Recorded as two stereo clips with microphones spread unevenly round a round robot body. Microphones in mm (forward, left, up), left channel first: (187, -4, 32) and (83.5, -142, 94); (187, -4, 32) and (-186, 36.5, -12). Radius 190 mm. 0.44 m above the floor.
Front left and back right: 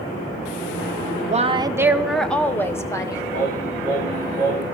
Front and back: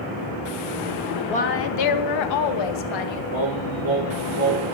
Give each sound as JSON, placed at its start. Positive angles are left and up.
{"t": 1.3, "sound": "a woman speaking", "azimuth_deg": -80, "distance_m": 0.9}
{"t": 3.3, "sound": "singing", "azimuth_deg": 120, "distance_m": 8.0}